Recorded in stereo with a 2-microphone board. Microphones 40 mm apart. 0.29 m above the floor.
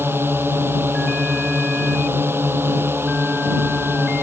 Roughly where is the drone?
Right.